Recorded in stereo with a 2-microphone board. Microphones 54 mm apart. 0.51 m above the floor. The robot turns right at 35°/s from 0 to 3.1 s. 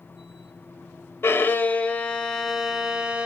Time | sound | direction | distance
1.2 | a violin | 135° left | 0.6 m